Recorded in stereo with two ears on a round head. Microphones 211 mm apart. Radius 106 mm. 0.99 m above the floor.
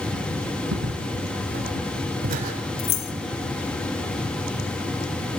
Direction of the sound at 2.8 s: 75° left (ahead or behind).